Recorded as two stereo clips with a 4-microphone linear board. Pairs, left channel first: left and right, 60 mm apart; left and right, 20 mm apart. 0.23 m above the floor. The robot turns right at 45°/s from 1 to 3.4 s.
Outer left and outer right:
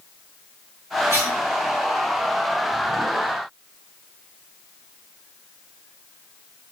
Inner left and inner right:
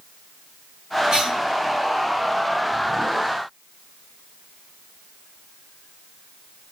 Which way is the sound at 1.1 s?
40° right (ahead or behind).